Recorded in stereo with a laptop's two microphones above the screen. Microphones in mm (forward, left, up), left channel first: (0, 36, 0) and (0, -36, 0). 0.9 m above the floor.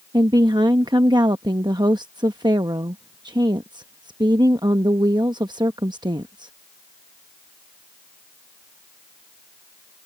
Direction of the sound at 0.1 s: 70° right (ahead or behind).